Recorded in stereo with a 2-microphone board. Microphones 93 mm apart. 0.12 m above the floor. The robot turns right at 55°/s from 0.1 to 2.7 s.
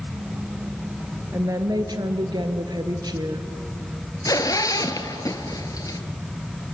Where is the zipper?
40° left (ahead or behind), 1.3 m.